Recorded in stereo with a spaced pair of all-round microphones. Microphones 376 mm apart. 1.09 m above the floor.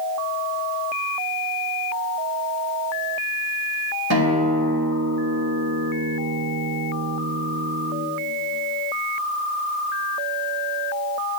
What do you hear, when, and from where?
4.1 s a guitar: 80° right, 5 m